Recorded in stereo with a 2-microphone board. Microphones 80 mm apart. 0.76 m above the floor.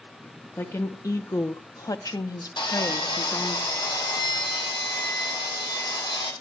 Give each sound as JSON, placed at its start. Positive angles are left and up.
{"t": 0.6, "sound": "a woman speaking", "side_deg": 35, "distance_m": 1.5}
{"t": 2.6, "sound": "sawing", "side_deg": 75, "distance_m": 4.0}